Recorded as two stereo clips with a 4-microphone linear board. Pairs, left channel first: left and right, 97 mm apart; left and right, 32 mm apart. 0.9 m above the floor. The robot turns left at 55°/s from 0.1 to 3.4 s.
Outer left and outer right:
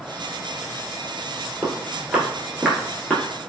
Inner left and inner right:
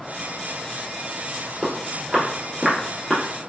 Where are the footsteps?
10° left (ahead or behind), 1.1 m; by 3.2 s 15° left (ahead or behind), 0.9 m.